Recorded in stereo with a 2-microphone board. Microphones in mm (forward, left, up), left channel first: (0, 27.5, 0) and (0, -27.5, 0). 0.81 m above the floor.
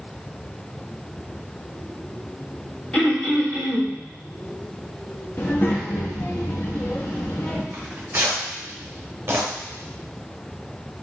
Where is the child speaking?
40° left (ahead or behind), 0.9 m.